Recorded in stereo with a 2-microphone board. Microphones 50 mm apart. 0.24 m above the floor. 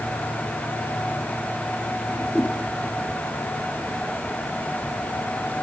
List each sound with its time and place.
2.1 s a whoosh: 10° left (ahead or behind), 3.5 m